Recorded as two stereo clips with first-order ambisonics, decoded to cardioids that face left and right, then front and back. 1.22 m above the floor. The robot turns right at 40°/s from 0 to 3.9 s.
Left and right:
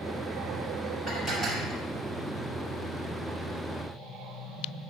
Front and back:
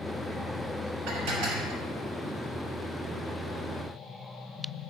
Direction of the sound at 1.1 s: 160° left.